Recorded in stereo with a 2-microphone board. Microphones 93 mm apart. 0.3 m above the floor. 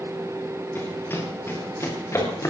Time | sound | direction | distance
0.8 | running footsteps | 20° left (ahead or behind) | 7 m